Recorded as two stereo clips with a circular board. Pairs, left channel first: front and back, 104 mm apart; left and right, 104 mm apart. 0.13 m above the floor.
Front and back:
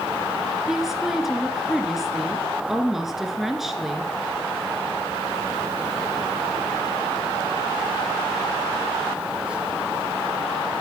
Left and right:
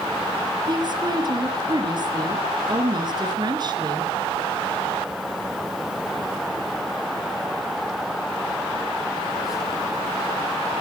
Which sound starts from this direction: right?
A woman speaking, at 0.7 s.